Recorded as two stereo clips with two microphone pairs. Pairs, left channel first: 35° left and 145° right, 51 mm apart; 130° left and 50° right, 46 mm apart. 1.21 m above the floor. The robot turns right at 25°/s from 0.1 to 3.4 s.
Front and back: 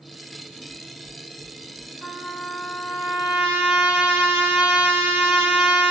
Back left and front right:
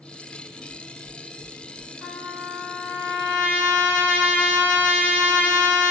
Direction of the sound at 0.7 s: 150° right.